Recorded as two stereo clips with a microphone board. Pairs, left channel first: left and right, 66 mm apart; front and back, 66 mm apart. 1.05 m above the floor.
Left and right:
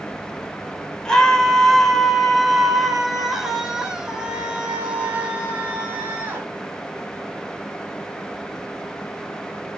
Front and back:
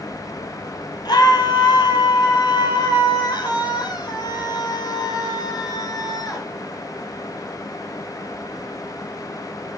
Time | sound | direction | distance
1.1 | a scream | 15° left | 4.5 m